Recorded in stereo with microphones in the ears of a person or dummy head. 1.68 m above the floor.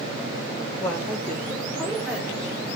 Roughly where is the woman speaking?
Centre.